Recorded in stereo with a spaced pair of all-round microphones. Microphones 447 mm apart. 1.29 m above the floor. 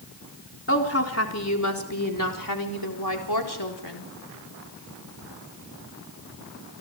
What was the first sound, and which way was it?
A woman speaking, 30° left (ahead or behind).